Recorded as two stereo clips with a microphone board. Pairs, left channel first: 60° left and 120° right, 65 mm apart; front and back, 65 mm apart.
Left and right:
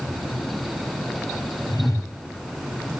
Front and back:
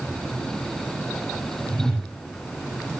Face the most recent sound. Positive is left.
turn(degrees=75)